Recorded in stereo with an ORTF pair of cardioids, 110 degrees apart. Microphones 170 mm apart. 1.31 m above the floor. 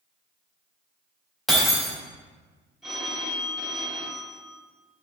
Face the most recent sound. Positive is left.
turn(degrees=0)